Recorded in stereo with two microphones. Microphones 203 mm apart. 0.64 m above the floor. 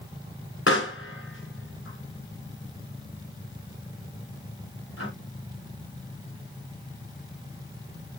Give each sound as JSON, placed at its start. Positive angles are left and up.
{"t": 0.7, "sound": "a pop", "side_deg": 80, "distance_m": 2.5}